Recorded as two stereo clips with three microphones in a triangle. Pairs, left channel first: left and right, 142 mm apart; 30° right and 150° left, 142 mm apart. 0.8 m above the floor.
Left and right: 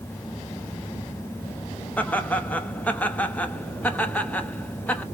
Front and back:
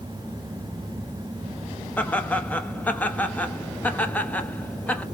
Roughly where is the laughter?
Ahead left.